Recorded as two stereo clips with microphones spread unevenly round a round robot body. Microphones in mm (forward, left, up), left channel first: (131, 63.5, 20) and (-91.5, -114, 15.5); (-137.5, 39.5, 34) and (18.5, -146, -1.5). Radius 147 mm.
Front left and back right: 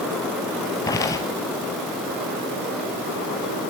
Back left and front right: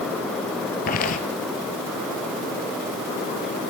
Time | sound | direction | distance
0.9 | footsteps | 110° left | 1.1 m